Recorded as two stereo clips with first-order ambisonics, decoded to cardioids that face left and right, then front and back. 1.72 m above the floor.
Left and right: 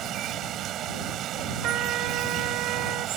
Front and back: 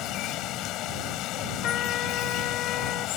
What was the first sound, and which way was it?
Running water, 40° right.